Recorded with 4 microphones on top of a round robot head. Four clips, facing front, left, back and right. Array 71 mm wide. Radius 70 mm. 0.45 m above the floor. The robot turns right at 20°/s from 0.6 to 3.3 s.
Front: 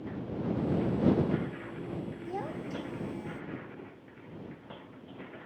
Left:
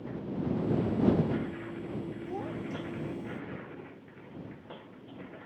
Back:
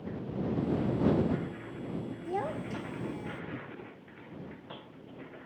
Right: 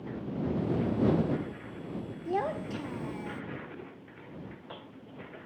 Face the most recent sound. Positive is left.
turn(degrees=-90)